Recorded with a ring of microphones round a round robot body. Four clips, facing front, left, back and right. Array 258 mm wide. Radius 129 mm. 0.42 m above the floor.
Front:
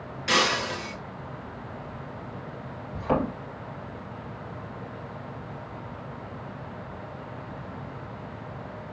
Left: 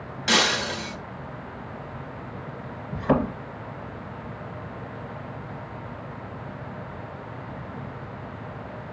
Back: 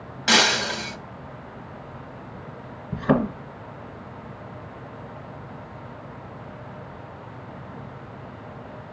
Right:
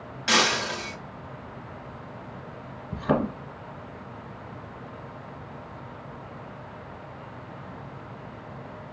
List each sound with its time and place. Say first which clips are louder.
0.3 s breaking glass: even, back 3 dB; 175° left, 1.4 m
2.9 s a thud: left 2 dB, back 5 dB; 170° right, 2.0 m